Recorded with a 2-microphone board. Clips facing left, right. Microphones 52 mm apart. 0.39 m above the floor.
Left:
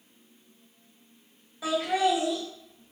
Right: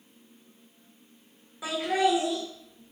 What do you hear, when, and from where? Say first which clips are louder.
1.6 s laughter: even; 15° right (ahead or behind), 1.6 m; by 2.9 s 15° left (ahead or behind), 1.5 m